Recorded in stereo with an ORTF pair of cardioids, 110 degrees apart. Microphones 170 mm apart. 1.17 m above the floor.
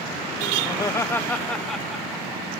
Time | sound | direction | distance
0.7 | laughter | 25° left | 1.4 m